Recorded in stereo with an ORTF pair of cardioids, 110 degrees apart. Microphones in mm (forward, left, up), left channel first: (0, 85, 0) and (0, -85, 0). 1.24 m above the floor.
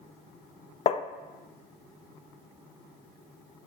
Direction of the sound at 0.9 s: 40° left.